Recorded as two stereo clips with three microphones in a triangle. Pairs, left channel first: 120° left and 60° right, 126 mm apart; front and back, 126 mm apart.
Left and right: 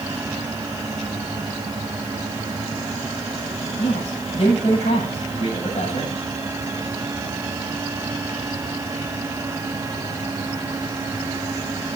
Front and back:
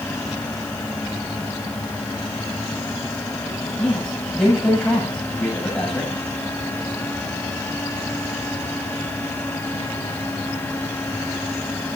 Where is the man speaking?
85° left, 8.5 m.